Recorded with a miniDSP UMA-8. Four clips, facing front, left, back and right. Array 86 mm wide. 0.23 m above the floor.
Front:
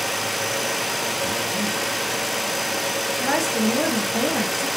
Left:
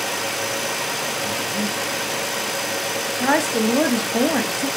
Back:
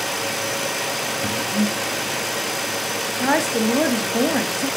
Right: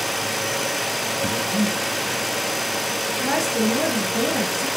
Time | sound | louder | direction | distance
1.2 | breathing | right 5 dB, back 3 dB | 125° right | 4.5 m
3.1 | a woman speaking | left 4 dB, back 4 dB | 125° left | 1.8 m